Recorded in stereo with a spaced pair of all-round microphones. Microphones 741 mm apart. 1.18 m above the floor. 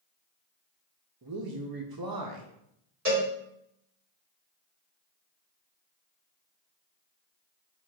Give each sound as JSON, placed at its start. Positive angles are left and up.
{"t": 1.2, "sound": "a man speaking", "side_deg": -30, "distance_m": 0.6}
{"t": 3.0, "sound": "a cowbell", "side_deg": -20, "distance_m": 2.0}